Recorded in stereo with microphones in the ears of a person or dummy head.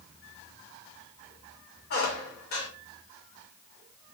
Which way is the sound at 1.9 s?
40° left (ahead or behind).